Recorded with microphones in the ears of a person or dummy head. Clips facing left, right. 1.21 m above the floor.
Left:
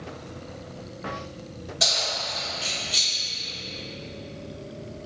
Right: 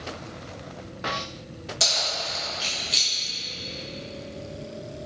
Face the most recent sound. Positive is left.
turn(degrees=-15)  # may be behind; listen again after turning